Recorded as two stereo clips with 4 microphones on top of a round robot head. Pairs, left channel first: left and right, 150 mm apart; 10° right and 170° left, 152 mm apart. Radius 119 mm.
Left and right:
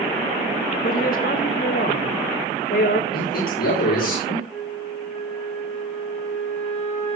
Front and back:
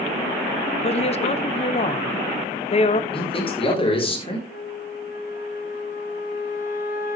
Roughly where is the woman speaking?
Ahead left.